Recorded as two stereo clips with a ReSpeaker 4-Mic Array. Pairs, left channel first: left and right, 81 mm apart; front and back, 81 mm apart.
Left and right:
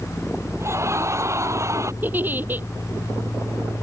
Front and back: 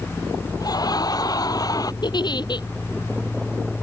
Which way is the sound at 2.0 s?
25° right.